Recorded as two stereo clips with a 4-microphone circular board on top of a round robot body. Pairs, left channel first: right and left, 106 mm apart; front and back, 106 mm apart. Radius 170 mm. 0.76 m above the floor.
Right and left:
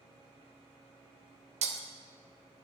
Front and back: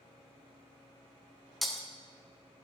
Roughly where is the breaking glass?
Left.